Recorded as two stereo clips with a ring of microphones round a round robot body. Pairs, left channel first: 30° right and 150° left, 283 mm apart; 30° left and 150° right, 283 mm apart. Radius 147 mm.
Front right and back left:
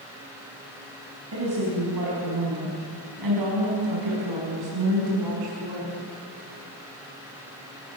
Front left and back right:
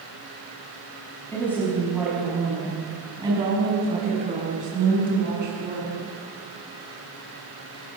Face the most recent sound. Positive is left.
turn(degrees=155)